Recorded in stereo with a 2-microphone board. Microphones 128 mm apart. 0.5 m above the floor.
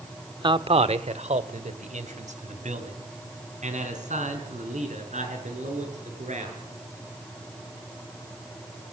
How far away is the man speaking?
About 1.0 m.